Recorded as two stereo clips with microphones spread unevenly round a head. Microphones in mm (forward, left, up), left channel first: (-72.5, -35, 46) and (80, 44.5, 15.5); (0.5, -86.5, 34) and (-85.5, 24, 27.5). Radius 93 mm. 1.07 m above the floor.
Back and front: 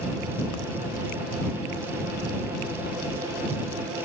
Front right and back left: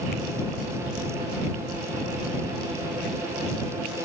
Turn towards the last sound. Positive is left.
No sound to turn to.